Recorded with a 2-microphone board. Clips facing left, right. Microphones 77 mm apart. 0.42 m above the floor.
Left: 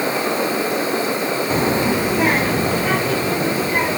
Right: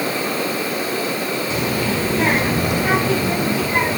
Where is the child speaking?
40° left (ahead or behind), 0.7 m; by 4.0 s 20° right (ahead or behind), 2.5 m.